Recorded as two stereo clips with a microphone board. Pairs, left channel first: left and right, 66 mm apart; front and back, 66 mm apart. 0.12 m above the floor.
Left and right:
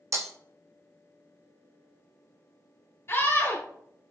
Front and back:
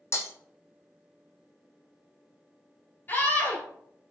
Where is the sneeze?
I don't hear a sneeze.